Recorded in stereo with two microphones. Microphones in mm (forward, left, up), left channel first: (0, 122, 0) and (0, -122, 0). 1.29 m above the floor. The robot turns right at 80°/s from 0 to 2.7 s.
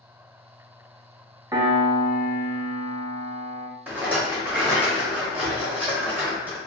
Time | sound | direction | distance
1.5 | a piano | 160° right | 0.6 m
3.9 | a rattle | 5° right (ahead or behind) | 1.2 m